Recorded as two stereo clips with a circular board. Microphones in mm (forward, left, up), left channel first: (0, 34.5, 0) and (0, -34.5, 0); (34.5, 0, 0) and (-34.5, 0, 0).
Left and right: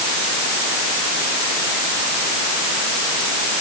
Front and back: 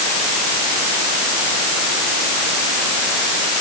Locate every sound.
Only background noise.